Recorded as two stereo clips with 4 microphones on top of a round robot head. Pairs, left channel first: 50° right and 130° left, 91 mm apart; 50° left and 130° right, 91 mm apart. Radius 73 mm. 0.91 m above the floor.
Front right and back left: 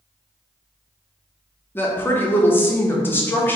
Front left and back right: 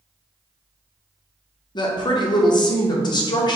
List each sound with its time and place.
1.8 s a woman speaking: 15° left, 0.7 m